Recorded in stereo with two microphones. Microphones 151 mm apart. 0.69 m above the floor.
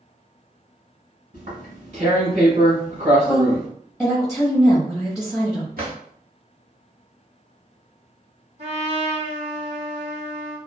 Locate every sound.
1.3 s tearing paper: 55° right (ahead or behind), 1.4 m
3.2 s a woman speaking: centre (ahead or behind), 1.0 m
5.8 s a drawer: 85° right, 1.1 m
8.6 s a trumpet: 45° right (ahead or behind), 1.5 m